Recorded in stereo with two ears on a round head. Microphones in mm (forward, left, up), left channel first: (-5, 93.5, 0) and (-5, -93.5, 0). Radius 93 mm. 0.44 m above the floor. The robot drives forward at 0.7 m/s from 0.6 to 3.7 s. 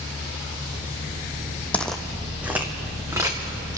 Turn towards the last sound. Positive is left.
turn(degrees=-15)  # may be behind; listen again after turning